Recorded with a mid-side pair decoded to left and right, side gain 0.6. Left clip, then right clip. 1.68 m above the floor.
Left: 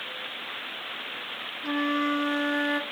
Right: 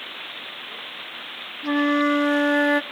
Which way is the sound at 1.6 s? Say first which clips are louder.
Right 6 dB; 30° right.